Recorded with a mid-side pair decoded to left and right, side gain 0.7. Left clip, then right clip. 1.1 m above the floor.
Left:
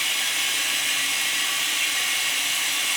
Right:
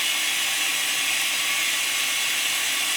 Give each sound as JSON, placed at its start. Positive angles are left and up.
{"t": 0.0, "sound": "running water", "azimuth_deg": 0, "distance_m": 3.5}